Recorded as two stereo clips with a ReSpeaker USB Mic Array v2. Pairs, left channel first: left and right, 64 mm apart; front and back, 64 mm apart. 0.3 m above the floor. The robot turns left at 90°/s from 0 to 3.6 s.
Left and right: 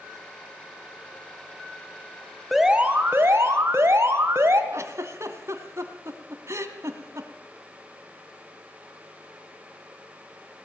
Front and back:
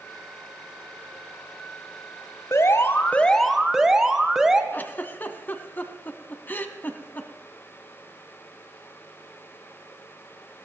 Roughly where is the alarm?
Ahead.